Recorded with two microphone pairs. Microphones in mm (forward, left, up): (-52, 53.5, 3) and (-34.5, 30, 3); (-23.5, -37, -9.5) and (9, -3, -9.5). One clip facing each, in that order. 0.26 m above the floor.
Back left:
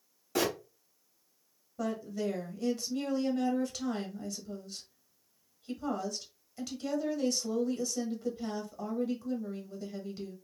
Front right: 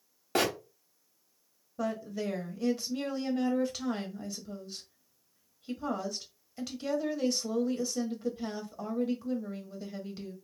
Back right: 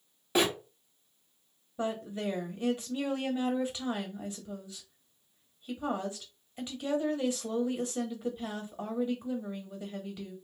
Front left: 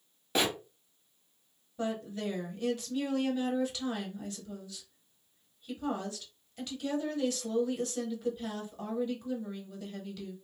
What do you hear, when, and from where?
0.3 s a bird: 50° right, 1.0 m
1.8 s a woman speaking: 120° right, 1.0 m